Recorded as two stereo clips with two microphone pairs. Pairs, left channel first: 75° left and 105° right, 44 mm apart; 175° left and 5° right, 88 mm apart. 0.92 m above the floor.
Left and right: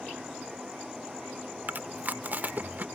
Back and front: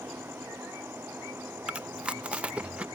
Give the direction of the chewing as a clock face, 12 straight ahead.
3 o'clock.